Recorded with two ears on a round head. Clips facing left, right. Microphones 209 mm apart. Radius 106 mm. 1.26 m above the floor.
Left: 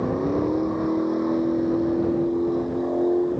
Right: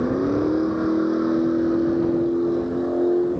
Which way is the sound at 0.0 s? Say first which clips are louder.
Right 2 dB; 15° right (ahead or behind).